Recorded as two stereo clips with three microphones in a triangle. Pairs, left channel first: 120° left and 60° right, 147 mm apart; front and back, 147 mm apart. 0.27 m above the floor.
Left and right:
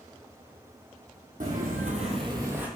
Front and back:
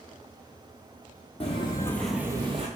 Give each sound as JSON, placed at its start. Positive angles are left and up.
{"t": 1.4, "sound": "footsteps", "azimuth_deg": -45, "distance_m": 0.7}